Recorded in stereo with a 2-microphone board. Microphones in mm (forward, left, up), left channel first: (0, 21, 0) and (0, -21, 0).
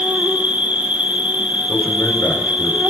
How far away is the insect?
About 1.7 m.